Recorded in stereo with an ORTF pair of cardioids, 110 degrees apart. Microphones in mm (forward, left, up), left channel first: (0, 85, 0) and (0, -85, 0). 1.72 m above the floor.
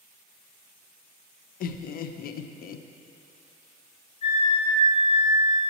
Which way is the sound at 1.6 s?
60° left.